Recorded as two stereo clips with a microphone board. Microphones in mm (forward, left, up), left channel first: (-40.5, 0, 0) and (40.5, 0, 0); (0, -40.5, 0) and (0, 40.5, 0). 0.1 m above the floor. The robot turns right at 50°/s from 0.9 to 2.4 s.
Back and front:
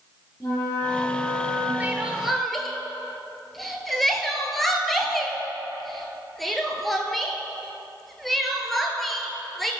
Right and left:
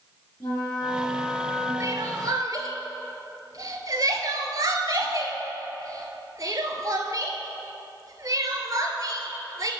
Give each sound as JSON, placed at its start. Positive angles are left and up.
{"t": 0.4, "sound": "a flute", "azimuth_deg": -125, "distance_m": 2.0}
{"t": 1.8, "sound": "crying", "azimuth_deg": 65, "distance_m": 0.7}